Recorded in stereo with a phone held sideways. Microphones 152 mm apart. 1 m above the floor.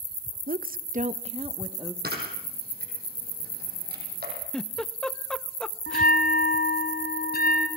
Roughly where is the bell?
Left.